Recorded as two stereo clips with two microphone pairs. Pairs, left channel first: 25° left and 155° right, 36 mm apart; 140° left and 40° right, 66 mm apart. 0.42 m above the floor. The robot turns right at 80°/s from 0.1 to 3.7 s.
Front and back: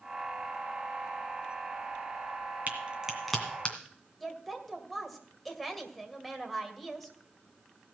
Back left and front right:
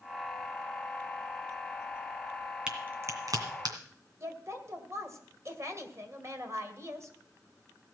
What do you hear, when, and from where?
2.7 s a crack: 115° right, 2 m; by 3.8 s 30° right, 2 m
4.2 s a woman speaking: 65° right, 2 m